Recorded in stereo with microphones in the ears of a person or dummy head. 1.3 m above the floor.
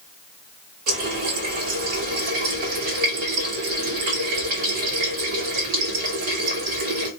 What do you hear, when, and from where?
0.9 s a running tap: 40° right (ahead or behind), 0.7 m